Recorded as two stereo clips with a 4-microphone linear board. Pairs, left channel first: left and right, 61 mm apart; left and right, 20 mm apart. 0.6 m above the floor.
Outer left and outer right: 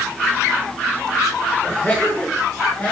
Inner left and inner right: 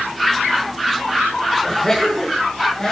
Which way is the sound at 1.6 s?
30° left (ahead or behind).